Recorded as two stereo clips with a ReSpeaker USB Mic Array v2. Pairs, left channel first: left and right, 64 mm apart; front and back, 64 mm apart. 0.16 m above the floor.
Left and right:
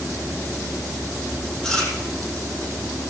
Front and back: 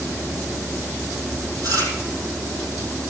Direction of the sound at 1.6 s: 165° left.